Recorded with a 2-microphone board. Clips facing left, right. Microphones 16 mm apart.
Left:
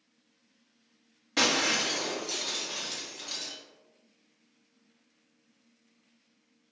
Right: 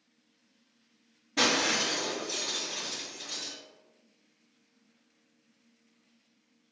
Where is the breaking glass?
75° left (ahead or behind), 0.9 m.